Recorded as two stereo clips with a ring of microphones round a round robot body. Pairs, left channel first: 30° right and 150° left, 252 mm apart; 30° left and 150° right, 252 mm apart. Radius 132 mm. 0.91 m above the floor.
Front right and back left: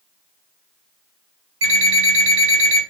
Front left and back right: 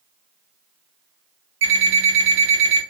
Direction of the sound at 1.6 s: Straight behind.